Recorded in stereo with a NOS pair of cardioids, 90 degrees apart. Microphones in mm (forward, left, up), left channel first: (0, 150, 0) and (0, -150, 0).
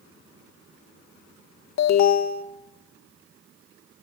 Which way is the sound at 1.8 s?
70° left.